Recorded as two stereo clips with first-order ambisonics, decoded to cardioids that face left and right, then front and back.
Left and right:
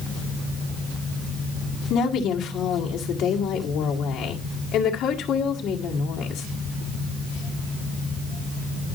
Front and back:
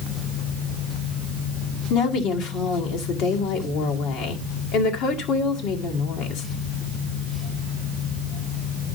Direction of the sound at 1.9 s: 35° left.